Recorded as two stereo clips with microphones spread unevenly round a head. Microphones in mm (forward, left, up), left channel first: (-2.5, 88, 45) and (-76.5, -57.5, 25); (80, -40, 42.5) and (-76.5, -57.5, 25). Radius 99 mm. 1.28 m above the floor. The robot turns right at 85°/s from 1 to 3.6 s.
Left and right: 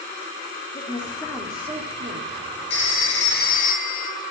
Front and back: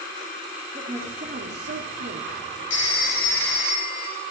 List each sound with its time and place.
0.7 s a woman speaking: 115° left, 2.5 m; by 2.3 s 130° right, 2.5 m
2.7 s a phone ringing: 25° left, 1.9 m; by 4.1 s 105° left, 1.9 m